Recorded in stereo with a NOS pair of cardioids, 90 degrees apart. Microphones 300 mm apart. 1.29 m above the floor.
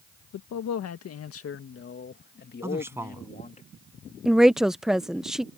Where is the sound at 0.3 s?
70° left; by 3.6 s 25° left.